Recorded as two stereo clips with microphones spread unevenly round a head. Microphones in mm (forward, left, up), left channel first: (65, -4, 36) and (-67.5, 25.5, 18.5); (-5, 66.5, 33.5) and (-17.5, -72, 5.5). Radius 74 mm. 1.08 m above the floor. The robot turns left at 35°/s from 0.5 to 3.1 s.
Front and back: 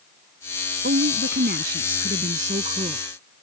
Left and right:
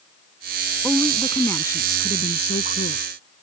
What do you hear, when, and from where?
0.8 s a woman speaking: 175° right; by 3.0 s 110° left